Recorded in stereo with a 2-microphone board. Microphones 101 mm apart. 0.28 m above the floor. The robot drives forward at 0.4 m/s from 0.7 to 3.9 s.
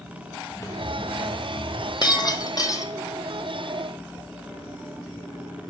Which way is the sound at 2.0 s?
45° left (ahead or behind).